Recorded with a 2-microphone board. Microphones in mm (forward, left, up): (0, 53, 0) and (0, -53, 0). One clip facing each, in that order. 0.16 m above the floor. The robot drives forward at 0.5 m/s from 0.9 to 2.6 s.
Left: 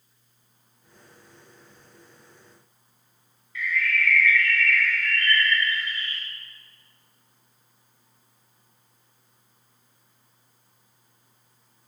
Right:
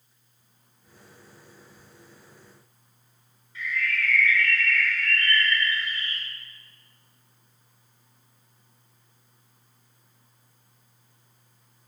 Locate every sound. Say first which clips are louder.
3.5 s a bird: left 3 dB; 30° right (ahead or behind), 1.7 m